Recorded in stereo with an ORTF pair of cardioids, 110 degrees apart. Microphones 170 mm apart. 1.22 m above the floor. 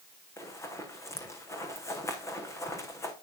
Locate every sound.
0.4 s running footsteps: 20° left, 6 m